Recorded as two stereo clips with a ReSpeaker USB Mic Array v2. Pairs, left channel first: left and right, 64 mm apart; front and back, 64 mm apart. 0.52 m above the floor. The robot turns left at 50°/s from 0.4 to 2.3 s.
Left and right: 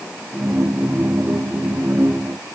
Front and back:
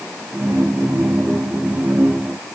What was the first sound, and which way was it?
Only background noise.